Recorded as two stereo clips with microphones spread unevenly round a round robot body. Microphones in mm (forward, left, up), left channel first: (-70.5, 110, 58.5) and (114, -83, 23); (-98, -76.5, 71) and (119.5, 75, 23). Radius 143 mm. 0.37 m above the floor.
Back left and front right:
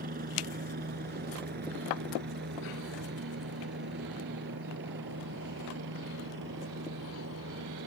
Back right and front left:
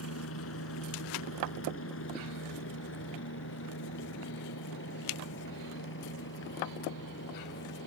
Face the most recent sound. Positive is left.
turn(degrees=-95)